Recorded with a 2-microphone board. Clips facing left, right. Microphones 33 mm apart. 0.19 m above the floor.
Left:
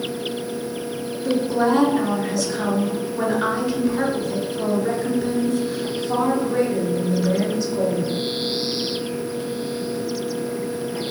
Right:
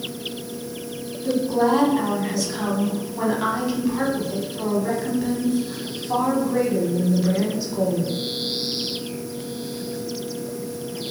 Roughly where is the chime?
I don't hear a chime.